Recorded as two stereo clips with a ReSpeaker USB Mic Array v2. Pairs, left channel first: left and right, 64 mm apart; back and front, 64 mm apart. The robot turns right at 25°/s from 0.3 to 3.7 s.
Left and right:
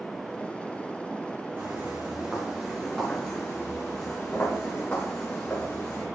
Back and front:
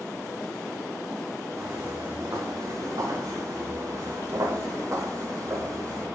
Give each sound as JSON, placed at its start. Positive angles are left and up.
{"t": 1.6, "sound": "footsteps", "azimuth_deg": -35, "distance_m": 2.5}